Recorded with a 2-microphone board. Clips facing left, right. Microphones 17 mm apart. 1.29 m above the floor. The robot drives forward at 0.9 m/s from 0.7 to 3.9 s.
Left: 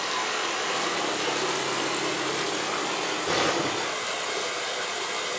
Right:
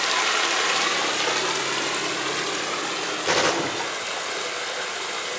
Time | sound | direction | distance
0.0 | running water | 35° right (ahead or behind) | 1.8 m
3.2 | a gunshot | 80° right | 3.5 m